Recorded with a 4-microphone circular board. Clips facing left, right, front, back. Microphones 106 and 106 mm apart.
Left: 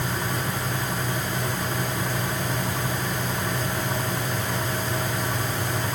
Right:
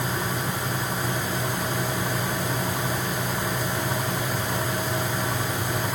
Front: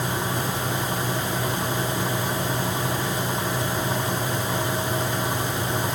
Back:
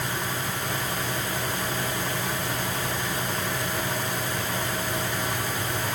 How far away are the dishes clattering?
No dishes clattering in this recording.